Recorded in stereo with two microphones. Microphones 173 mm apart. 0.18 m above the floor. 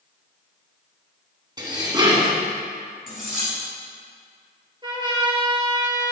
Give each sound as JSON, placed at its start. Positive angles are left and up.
{"t": 1.6, "sound": "dishes clattering", "side_deg": -25, "distance_m": 1.2}
{"t": 3.1, "sound": "cutlery clinking", "side_deg": 55, "distance_m": 2.5}
{"t": 4.8, "sound": "a trumpet", "side_deg": -25, "distance_m": 1.0}